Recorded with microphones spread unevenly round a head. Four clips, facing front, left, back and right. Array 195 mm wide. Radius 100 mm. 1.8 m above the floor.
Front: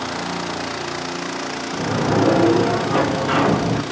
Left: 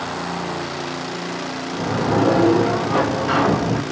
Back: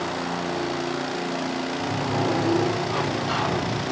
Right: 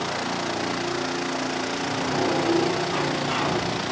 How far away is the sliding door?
About 2.5 m.